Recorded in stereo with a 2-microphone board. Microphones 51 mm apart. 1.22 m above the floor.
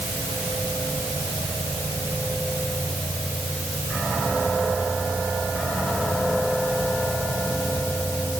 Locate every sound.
Only background noise.